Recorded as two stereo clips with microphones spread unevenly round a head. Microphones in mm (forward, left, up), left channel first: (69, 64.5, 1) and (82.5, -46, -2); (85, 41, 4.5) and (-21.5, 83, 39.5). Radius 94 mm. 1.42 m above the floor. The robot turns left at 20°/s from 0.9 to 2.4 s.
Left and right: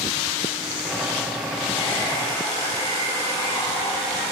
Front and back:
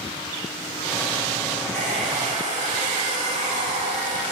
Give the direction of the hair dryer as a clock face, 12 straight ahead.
6 o'clock.